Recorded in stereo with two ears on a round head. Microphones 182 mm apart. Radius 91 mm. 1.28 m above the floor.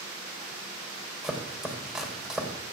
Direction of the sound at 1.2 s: Centre (ahead or behind).